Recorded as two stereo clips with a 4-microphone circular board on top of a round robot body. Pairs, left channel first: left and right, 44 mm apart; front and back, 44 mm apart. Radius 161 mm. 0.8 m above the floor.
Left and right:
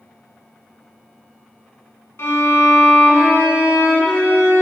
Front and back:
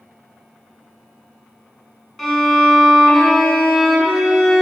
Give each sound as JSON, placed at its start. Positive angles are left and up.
{"t": 2.2, "sound": "a violin", "azimuth_deg": 85, "distance_m": 1.6}